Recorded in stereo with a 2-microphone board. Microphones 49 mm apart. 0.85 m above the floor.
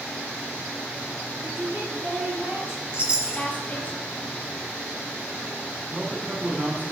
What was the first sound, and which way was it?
A woman speaking, 45° right (ahead or behind).